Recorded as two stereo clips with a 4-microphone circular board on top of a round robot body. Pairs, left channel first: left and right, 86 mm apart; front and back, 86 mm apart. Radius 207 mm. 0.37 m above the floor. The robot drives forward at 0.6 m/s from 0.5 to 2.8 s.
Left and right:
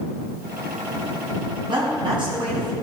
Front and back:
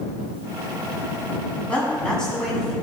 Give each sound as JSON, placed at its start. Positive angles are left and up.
{"t": 1.7, "sound": "a woman speaking", "azimuth_deg": -75, "distance_m": 5.5}